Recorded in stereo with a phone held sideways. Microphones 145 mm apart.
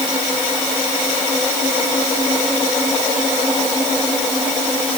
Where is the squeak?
I don't hear a squeak.